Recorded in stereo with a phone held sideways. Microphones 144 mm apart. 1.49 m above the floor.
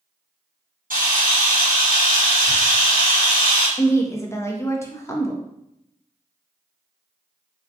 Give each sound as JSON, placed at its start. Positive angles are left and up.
{"t": 0.9, "sound": "a camera shutter", "side_deg": -80, "distance_m": 1.2}
{"t": 3.8, "sound": "a woman speaking", "side_deg": 20, "distance_m": 0.6}